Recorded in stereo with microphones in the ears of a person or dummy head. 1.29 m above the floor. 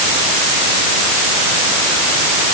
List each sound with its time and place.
Only background noise.